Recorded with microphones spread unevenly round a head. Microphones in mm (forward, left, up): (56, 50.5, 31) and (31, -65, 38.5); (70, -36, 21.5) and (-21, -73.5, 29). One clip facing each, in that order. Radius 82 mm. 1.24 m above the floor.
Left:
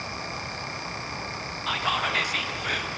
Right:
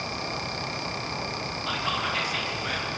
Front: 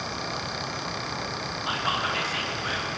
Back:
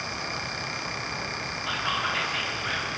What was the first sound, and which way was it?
Whispering, 75° left.